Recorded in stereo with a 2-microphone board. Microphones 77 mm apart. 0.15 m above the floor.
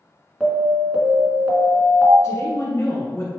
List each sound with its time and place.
0.4 s an alarm: 15° right (ahead or behind), 1.1 m
2.2 s a woman speaking: 40° left (ahead or behind), 1.3 m